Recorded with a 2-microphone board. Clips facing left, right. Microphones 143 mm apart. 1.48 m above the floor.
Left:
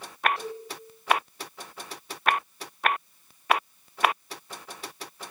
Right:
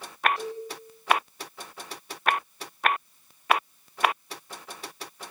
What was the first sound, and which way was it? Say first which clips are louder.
A cowbell: right 2 dB; centre (ahead or behind).